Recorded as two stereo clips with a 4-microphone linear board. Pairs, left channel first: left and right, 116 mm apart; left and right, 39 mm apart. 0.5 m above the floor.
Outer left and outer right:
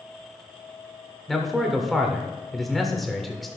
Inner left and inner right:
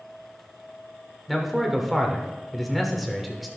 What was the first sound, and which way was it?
A man speaking, centre (ahead or behind).